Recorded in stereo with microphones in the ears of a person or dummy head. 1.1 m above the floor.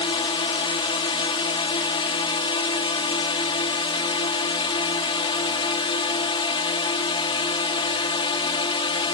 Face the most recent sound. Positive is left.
turn(degrees=25)  # may be behind; listen again after turning